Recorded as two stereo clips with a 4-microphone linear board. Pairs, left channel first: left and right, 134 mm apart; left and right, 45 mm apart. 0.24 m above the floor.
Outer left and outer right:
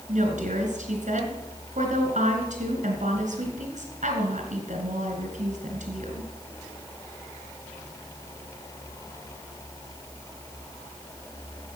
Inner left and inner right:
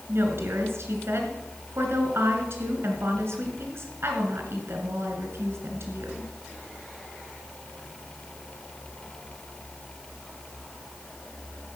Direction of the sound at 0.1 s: 65° right (ahead or behind).